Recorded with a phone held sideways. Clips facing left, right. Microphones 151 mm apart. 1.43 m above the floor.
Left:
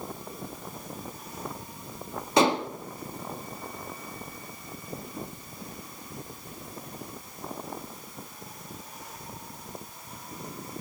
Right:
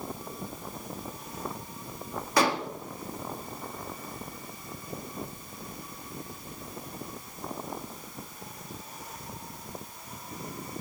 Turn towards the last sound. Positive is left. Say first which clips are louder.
# left 4 dB
turn(degrees=20)  # may be behind; listen again after turning